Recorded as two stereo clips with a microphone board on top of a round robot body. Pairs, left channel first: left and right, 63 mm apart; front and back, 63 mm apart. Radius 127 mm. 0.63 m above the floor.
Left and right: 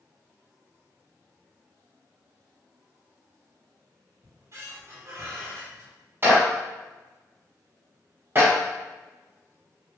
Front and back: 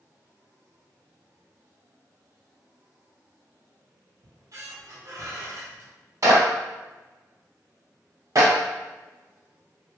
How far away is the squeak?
About 0.9 m.